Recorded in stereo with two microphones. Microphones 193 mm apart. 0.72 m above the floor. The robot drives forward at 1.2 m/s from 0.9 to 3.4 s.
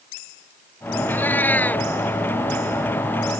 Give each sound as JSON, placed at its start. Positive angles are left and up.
{"t": 1.1, "sound": "a cat meowing", "side_deg": 10}